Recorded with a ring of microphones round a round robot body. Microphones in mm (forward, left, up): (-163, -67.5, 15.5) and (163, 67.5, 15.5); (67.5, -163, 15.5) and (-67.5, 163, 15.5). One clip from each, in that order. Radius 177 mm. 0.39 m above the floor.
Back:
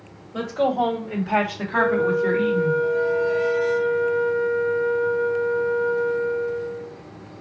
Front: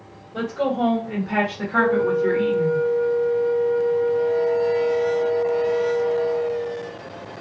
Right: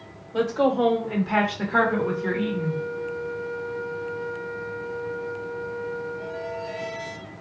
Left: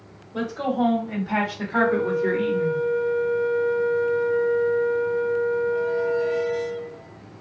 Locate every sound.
0.3 s a woman speaking: 80° right, 1.5 m; by 2.7 s 130° left, 1.3 m
1.7 s a flute: 135° left, 0.7 m